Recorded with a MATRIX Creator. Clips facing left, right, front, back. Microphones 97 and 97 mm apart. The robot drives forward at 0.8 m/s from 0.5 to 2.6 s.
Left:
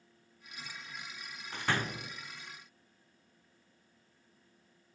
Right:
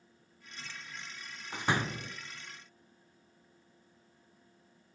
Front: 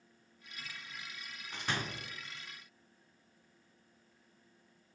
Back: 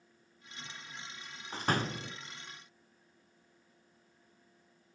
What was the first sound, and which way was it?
A door slam, 150° right.